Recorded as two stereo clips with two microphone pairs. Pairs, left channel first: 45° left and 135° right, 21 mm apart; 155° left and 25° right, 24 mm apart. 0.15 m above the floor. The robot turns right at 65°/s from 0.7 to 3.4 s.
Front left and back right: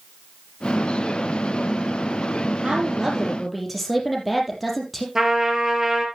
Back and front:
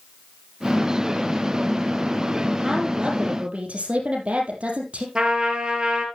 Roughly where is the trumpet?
Right.